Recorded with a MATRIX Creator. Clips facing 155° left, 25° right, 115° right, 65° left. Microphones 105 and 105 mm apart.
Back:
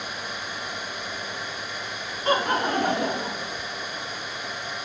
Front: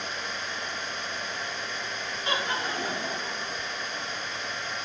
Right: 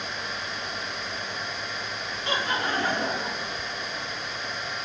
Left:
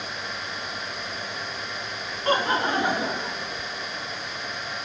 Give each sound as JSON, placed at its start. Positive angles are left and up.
{"t": 2.2, "sound": "laughter", "azimuth_deg": 110, "distance_m": 1.1}